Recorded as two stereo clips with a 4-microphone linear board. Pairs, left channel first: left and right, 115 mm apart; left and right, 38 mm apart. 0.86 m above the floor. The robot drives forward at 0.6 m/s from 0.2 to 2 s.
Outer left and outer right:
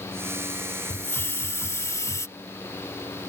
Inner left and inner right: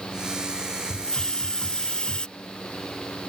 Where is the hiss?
20° left (ahead or behind); by 2.3 s 25° left (ahead or behind).